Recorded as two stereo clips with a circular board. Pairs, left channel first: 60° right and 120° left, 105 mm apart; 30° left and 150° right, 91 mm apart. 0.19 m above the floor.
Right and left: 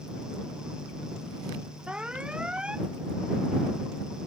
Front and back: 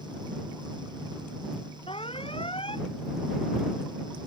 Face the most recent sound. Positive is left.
turn(degrees=40)